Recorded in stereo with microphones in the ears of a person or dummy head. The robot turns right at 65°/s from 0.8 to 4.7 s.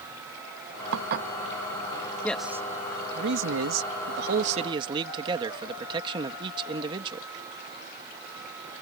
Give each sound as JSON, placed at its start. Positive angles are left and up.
{"t": 0.9, "sound": "dishes clattering", "side_deg": -65}
{"t": 2.2, "sound": "a man speaking", "azimuth_deg": 170}